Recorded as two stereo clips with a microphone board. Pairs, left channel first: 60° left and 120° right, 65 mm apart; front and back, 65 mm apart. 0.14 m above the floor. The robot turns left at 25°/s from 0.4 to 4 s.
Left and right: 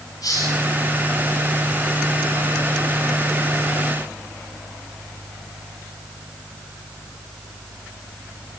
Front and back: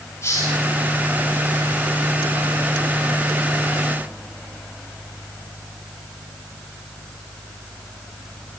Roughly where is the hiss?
Ahead left.